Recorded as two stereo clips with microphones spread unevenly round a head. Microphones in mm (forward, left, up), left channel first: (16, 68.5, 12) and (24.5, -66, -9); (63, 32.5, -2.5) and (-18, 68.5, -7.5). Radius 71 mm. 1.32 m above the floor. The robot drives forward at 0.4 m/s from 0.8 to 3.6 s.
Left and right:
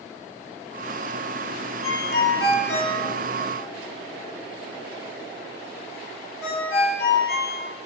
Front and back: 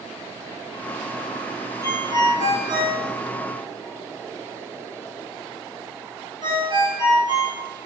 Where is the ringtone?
95° left, 1.6 m; by 7.6 s 120° left, 1.8 m.